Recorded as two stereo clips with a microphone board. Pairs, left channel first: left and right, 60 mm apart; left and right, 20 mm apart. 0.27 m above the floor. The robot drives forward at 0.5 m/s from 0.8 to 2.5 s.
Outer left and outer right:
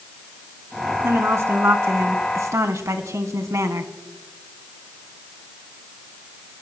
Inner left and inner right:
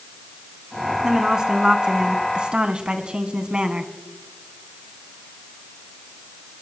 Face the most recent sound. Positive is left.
turn(degrees=-55)  # may be behind; listen again after turning